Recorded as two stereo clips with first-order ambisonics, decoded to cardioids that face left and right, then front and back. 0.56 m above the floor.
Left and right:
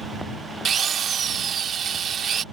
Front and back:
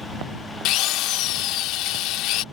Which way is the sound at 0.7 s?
30° right.